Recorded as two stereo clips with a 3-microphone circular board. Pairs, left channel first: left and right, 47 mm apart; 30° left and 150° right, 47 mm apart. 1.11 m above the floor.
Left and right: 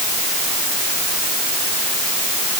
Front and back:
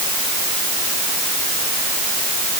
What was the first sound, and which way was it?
Only background noise.